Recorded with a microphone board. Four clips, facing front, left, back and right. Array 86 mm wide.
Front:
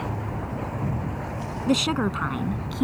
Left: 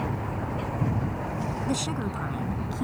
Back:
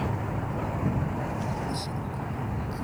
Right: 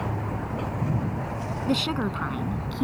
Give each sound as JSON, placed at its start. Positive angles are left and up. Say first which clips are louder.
{"t": 1.7, "sound": "a woman speaking", "louder": "right 7 dB, front 10 dB", "azimuth_deg": -15}